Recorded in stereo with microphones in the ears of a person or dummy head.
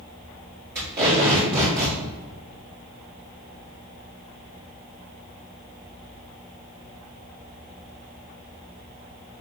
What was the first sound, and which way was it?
Tape being pulled, 20° right (ahead or behind).